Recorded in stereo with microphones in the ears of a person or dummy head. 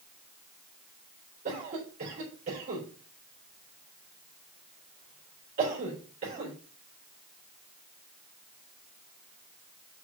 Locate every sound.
1.4 s a cough: 35° right (ahead or behind), 4 m